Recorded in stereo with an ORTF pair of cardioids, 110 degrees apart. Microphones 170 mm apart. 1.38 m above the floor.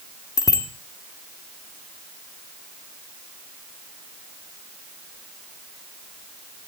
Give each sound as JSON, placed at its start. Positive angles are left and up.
{"t": 0.4, "sound": "a bicycle bell", "azimuth_deg": 25, "distance_m": 2.5}